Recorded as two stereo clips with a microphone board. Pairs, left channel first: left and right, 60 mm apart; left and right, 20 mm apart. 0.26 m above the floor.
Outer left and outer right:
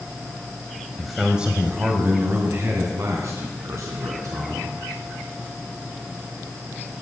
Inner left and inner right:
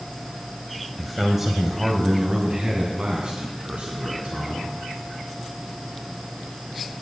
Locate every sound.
1.0 s a man speaking: centre (ahead or behind), 1.2 m; by 4.7 s 65° right (ahead or behind), 3 m